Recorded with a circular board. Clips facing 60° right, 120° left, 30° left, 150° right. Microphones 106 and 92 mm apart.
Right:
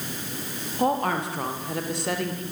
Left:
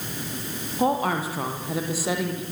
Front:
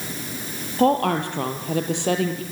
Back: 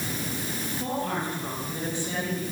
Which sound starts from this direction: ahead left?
A woman speaking, at 0.8 s.